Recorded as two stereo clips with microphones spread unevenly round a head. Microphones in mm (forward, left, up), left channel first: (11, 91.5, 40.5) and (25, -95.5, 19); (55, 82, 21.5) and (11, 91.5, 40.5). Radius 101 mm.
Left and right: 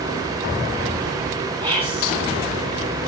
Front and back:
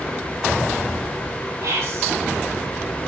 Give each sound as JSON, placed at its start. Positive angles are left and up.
{"t": 1.6, "sound": "whispering", "azimuth_deg": -150, "distance_m": 1.7}